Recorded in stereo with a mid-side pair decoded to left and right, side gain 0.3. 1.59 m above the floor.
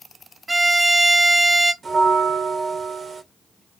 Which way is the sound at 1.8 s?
70° right.